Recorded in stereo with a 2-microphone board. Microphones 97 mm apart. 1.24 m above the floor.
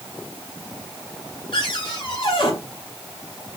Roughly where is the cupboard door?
Left.